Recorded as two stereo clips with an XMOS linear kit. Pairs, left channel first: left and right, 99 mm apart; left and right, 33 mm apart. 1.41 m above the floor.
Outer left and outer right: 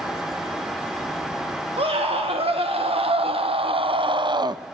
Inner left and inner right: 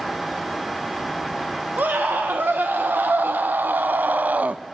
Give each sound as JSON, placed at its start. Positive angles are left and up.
{"t": 1.8, "sound": "a scream", "side_deg": -80, "distance_m": 1.8}